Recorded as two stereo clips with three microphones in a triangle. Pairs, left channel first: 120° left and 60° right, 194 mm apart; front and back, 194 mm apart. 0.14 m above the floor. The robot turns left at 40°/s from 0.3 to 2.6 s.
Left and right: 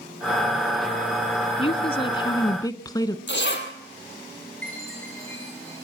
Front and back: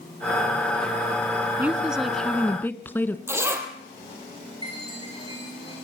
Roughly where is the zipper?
Left.